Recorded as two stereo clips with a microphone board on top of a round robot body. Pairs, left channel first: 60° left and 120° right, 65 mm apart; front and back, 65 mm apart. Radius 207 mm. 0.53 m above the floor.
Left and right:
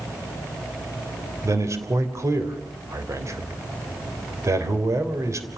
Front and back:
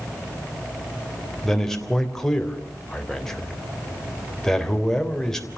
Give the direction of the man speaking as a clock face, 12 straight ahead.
3 o'clock.